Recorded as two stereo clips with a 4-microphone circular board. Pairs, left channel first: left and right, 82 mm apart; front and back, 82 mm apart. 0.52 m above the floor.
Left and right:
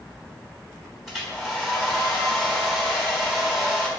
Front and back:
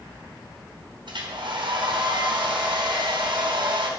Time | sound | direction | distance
1.1 | a hair dryer | straight behind | 3.5 m